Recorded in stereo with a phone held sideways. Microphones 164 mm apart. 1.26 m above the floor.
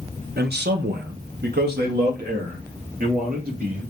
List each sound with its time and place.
0.4 s a man speaking: 75° right (ahead or behind), 0.8 m; by 3.8 s 65° right (ahead or behind), 2.5 m